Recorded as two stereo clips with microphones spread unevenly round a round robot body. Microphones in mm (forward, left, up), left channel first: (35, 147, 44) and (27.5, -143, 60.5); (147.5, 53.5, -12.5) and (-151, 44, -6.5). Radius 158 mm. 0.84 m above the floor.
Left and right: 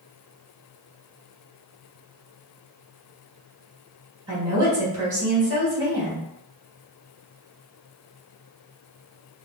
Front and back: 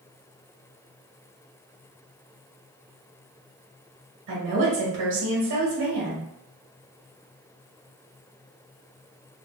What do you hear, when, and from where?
4.3 s a woman speaking: 170° right, 1.3 m